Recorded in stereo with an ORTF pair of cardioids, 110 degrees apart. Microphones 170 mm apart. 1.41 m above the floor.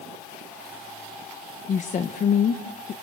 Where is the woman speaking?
50° left, 1.7 m.